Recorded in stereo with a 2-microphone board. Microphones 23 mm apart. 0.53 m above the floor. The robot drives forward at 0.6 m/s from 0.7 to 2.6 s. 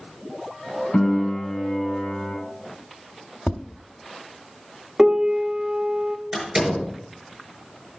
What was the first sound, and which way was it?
A piano, 40° left (ahead or behind).